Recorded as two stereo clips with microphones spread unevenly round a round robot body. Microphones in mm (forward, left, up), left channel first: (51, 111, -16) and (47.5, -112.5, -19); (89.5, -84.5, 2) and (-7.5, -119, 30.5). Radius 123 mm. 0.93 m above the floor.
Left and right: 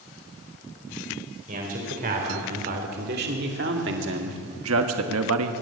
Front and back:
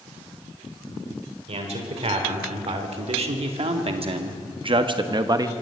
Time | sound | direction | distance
1.5 | a man speaking | 150° right | 4 m